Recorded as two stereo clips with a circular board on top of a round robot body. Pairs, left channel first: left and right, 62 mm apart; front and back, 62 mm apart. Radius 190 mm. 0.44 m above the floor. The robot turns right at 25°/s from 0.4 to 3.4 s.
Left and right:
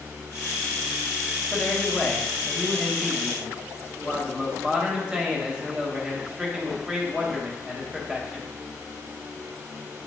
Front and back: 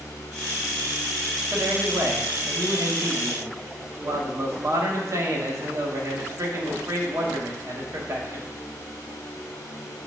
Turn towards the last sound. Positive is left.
turn(degrees=-165)